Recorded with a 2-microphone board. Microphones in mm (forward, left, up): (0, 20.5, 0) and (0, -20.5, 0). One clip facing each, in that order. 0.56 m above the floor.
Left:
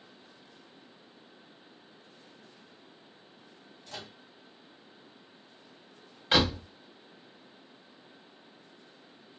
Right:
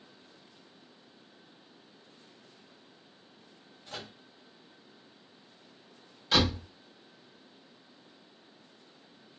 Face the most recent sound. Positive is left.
turn(degrees=35)  # may be behind; listen again after turning